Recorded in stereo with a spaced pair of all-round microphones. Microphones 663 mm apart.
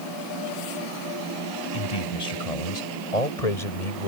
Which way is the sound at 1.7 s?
65° left (ahead or behind).